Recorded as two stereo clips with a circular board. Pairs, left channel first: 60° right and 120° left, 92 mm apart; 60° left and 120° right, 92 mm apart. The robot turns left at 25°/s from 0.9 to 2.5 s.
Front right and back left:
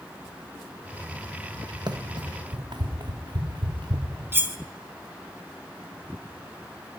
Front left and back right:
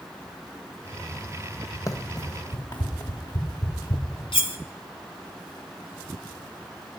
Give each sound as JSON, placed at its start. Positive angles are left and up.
{"t": 1.9, "sound": "running footsteps", "azimuth_deg": 105, "distance_m": 1.3}
{"t": 4.3, "sound": "cutlery clinking", "azimuth_deg": 55, "distance_m": 1.1}